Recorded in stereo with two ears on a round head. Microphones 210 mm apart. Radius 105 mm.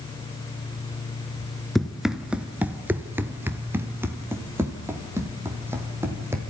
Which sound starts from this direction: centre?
Running footsteps, at 1.8 s.